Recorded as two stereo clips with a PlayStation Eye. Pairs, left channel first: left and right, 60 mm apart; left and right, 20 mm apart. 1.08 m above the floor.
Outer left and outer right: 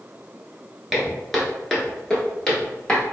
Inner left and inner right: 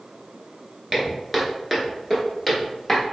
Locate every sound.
0.9 s footsteps: centre (ahead or behind), 1.1 m; by 3.0 s 15° left (ahead or behind), 1.6 m